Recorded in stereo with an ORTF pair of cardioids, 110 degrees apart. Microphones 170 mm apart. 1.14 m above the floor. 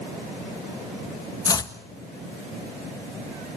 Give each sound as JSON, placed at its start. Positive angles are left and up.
{"t": 1.4, "sound": "chopping", "azimuth_deg": 25, "distance_m": 1.5}